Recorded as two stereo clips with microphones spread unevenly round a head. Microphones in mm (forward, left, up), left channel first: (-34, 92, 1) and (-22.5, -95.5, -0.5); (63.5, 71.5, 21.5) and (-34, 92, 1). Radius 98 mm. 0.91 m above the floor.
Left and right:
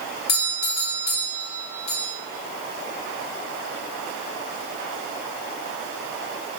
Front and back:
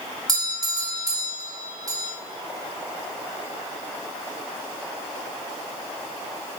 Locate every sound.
0.3 s a doorbell: 125° left, 2.5 m